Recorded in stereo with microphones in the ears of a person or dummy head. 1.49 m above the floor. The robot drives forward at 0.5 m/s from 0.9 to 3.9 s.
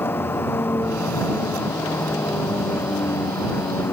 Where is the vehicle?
15° left (ahead or behind).